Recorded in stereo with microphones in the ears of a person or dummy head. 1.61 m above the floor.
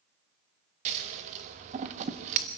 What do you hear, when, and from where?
0.8 s scissors: 40° right (ahead or behind), 1.3 m